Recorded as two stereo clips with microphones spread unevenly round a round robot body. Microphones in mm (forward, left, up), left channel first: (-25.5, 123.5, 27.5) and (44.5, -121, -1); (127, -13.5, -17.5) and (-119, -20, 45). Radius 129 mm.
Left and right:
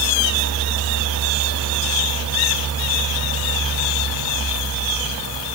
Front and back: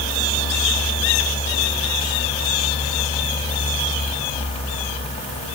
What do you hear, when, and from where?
Only background noise.